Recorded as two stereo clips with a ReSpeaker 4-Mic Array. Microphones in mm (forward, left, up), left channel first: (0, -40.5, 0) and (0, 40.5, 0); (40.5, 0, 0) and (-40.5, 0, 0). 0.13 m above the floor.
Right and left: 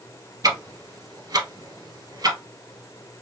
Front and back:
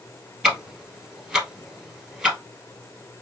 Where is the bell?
No bell in this recording.